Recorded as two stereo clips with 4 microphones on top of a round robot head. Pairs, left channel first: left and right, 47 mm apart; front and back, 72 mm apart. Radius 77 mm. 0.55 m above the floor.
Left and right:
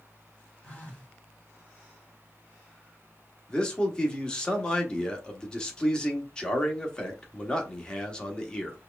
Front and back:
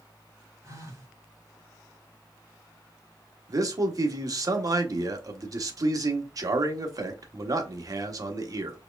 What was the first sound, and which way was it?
A phone buzzing, 145° left.